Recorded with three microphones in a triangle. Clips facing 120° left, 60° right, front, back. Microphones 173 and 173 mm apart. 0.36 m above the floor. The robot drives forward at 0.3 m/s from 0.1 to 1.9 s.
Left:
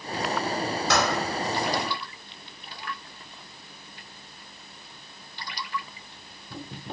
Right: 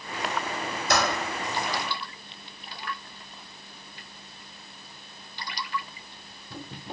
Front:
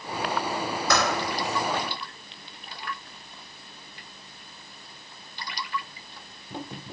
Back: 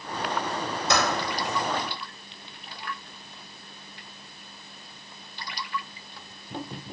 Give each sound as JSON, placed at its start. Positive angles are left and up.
{"t": 0.9, "sound": "typing on a keyboard", "azimuth_deg": 115, "distance_m": 1.3}